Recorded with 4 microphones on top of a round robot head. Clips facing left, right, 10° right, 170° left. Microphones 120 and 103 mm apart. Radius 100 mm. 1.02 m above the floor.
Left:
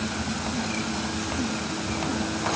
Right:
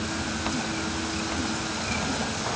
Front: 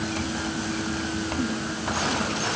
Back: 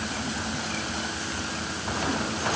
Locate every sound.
Only background noise.